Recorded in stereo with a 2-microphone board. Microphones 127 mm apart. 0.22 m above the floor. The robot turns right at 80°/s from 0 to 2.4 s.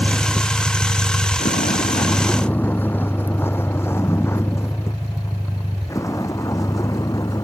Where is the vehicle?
15° right (ahead or behind); by 7.4 s 25° left (ahead or behind).